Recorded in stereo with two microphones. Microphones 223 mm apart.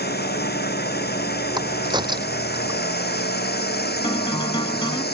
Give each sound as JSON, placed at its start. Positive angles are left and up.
{"t": 0.0, "sound": "a drone", "side_deg": 45}
{"t": 1.6, "sound": "a crack", "side_deg": -20}
{"t": 4.0, "sound": "a guitar", "side_deg": 20}